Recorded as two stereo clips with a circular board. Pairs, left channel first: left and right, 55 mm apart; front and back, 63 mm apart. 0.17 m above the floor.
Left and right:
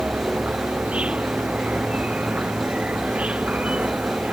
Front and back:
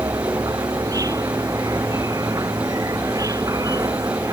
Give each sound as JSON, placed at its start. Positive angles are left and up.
{"t": 0.0, "sound": "an insect", "azimuth_deg": -160}